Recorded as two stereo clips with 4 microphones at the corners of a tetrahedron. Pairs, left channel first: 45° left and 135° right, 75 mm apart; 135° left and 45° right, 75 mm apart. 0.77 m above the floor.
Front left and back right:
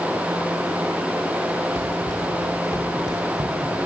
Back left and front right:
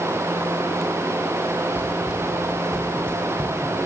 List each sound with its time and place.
1.8 s running footsteps: 105° right, 1.1 m; by 3.8 s 165° right, 1.8 m